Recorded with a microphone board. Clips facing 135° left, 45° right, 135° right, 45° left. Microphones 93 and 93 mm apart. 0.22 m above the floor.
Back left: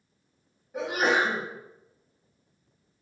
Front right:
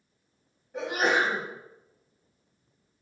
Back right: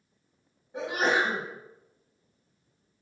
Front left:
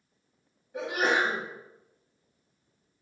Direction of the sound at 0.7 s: 145° right.